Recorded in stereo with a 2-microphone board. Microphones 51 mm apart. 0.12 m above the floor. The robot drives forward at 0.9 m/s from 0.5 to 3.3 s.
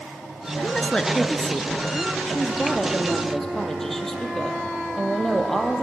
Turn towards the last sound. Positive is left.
turn(degrees=5)  # may be behind; listen again after turning